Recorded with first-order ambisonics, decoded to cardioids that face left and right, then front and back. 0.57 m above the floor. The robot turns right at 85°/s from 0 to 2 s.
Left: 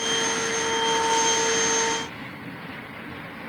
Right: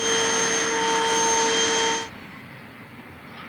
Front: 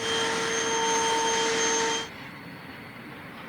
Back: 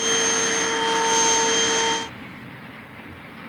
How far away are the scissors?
No scissors in this recording.